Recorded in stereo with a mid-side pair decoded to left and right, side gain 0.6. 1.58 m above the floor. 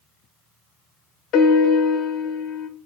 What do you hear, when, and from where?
1.3 s a piano: 60° left, 0.8 m